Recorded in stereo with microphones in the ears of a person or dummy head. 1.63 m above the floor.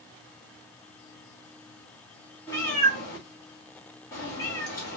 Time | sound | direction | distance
2.5 | a cat meowing | 15° left (ahead or behind) | 1.8 m